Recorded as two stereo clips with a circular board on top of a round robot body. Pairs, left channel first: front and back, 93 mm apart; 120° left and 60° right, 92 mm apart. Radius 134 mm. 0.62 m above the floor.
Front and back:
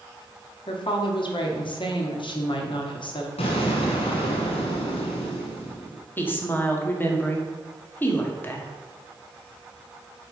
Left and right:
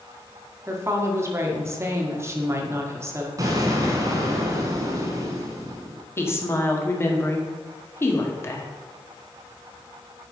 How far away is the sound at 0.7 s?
About 1.6 m.